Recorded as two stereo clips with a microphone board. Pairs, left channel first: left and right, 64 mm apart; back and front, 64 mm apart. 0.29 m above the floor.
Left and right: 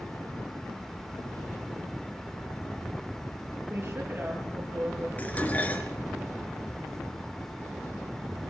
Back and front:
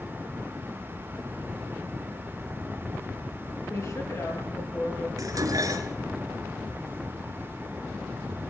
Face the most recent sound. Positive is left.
turn(degrees=25)